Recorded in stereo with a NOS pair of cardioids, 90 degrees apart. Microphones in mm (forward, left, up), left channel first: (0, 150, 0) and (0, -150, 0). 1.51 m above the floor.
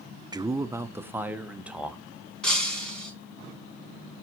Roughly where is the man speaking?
Ahead.